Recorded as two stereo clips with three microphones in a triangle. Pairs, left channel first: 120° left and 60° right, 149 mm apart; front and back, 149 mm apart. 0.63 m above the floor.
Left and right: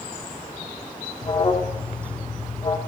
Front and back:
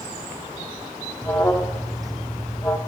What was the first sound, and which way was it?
An alarm, 70° left.